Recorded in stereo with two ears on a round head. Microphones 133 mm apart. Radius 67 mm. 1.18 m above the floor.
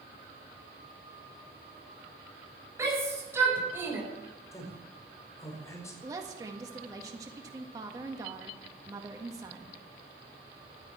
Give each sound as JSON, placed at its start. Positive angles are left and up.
{"t": 2.8, "sound": "a shout", "side_deg": -20, "distance_m": 5.0}
{"t": 4.5, "sound": "a man speaking", "side_deg": 20, "distance_m": 4.5}
{"t": 6.0, "sound": "a woman speaking", "side_deg": -20, "distance_m": 1.7}